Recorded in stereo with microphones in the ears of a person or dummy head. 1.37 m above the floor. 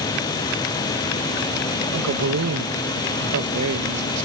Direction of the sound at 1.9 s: 85° right.